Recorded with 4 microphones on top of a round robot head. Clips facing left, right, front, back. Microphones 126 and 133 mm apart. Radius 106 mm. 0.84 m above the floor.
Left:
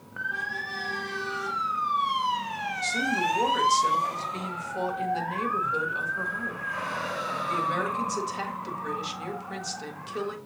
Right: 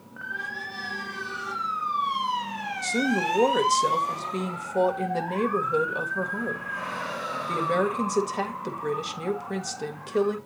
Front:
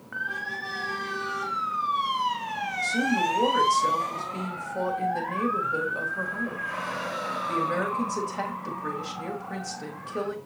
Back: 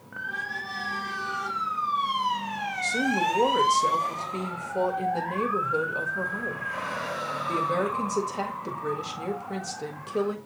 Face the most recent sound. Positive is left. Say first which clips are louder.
# right 3 dB, even
turn(degrees=-115)